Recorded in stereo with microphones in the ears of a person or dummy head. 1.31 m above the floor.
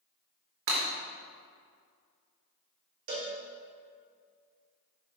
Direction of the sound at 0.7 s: 65° right (ahead or behind).